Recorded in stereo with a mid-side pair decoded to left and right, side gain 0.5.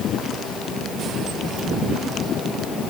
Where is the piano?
No piano in this recording.